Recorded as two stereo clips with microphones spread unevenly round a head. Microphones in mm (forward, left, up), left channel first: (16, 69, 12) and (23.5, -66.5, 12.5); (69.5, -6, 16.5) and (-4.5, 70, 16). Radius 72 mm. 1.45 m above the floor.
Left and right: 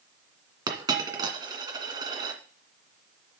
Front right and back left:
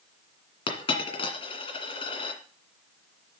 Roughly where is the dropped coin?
Ahead right.